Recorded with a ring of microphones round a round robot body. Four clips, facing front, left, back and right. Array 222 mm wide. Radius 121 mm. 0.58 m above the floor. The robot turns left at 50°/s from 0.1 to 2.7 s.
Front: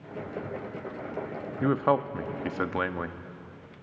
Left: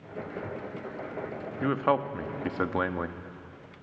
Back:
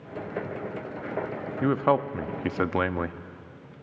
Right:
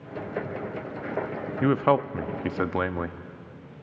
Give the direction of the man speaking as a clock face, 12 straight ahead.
3 o'clock.